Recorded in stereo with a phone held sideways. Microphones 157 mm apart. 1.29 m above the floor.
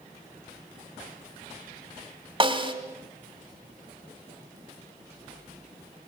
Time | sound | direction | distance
2.4 | a snare drum | 35° right (ahead or behind) | 2 m